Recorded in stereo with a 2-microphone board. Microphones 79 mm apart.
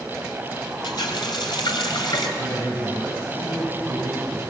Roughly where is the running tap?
Left.